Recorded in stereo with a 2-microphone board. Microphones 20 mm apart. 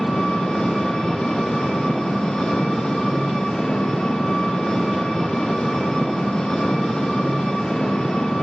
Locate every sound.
0.0 s an engine running: 35° left (ahead or behind), 4.5 m